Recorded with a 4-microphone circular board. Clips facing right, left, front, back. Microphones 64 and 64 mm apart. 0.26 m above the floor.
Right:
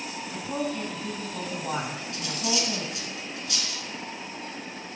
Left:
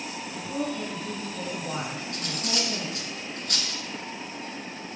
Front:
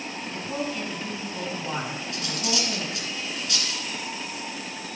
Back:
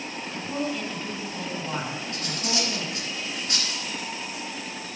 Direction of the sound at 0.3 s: 75° right.